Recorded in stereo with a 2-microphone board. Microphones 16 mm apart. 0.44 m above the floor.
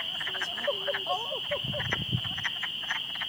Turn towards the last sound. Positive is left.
turn(degrees=-80)